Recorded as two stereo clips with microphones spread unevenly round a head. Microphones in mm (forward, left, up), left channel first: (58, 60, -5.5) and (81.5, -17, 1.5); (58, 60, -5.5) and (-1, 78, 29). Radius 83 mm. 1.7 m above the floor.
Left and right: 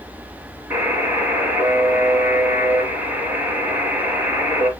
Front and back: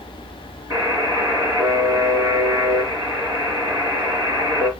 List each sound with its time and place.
0.7 s a buzzer: 140° right, 3.5 m